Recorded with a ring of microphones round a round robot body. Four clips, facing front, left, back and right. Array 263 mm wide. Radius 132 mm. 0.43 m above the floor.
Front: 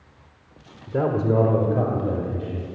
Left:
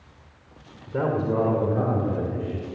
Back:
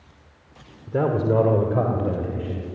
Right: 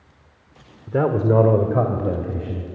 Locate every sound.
0.9 s a man speaking: 95° right, 1.5 m; by 2.6 s 100° right, 3 m